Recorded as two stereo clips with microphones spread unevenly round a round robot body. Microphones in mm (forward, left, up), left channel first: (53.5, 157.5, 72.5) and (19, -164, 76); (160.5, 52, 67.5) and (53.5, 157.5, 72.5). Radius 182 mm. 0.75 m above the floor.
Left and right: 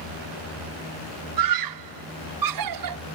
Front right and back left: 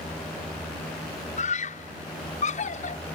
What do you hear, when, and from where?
1.4 s a scream: 90° right